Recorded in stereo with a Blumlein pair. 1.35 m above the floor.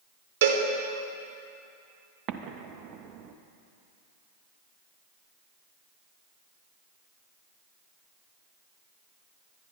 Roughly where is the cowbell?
Ahead right.